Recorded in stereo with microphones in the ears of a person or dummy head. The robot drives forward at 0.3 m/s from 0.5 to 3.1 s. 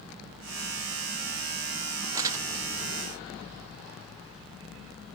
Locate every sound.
2.1 s crumpling: 15° right (ahead or behind), 0.8 m; by 2.5 s 20° right (ahead or behind), 0.7 m